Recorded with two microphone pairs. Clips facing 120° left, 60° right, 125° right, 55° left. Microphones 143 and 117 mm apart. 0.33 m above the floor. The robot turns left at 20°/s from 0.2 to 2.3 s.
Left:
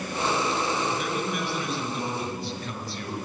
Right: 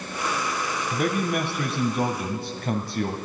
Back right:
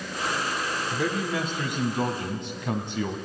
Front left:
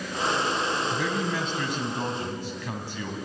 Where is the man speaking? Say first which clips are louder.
Right 4 dB, back right 1 dB; 35° right, 2 m; by 3.1 s 60° right, 2 m.